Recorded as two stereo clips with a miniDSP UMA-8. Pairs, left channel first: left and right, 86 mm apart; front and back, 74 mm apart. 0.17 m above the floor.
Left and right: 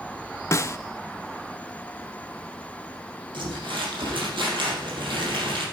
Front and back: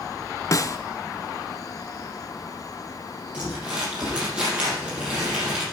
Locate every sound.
0.5 s a snare drum: 35° left, 0.5 m
3.3 s crumpling: 105° right, 5 m